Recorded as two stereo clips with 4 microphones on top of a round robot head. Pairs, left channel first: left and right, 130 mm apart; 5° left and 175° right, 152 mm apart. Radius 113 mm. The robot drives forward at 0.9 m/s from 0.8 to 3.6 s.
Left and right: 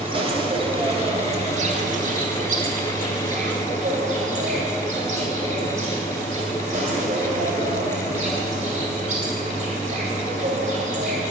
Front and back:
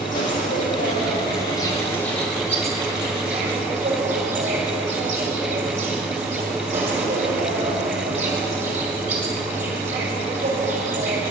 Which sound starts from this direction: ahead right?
An insect, at 0.0 s.